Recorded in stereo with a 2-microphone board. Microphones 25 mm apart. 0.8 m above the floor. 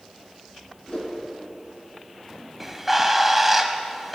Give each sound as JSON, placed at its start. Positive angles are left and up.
{"t": 0.9, "sound": "a whoosh", "side_deg": 40, "distance_m": 4.0}
{"t": 2.6, "sound": "a bird", "side_deg": -5, "distance_m": 1.0}